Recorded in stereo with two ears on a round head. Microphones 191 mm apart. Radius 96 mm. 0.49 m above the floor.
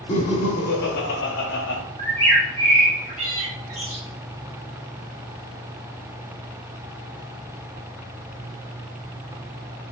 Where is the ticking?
No ticking in this recording.